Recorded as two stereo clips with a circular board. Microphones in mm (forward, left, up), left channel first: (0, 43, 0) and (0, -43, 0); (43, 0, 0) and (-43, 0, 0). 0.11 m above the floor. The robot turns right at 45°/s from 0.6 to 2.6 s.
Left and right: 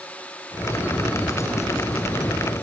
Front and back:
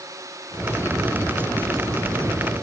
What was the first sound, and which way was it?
Only background noise.